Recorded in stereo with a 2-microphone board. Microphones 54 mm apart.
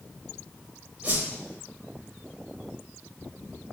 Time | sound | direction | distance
1.0 | a whoosh | 25° right (ahead or behind) | 1.0 m